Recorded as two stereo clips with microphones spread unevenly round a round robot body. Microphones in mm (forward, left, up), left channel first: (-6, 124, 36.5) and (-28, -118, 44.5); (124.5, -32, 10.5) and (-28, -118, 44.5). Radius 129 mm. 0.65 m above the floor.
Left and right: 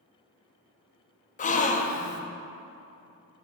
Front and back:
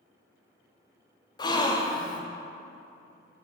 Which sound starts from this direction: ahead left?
A gasp, at 1.4 s.